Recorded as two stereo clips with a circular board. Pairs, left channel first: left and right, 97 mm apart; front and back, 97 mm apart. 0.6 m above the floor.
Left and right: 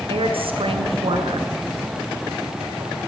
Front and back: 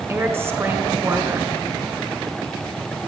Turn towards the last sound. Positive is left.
turn(degrees=-115)